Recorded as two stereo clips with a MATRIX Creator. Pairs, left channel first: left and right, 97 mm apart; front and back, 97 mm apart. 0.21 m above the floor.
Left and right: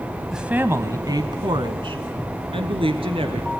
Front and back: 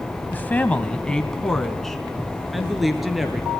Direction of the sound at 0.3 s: 10° right.